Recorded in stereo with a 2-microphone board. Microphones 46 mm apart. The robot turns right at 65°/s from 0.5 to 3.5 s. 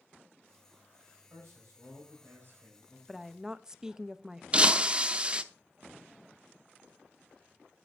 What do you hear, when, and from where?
1.3 s a man speaking: 130° right, 4.5 m; by 3.0 s 25° right, 4.5 m
3.1 s a woman speaking: centre (ahead or behind), 0.6 m; by 4.4 s 15° right (ahead or behind), 0.6 m
4.5 s breaking glass: 25° right (ahead or behind), 0.7 m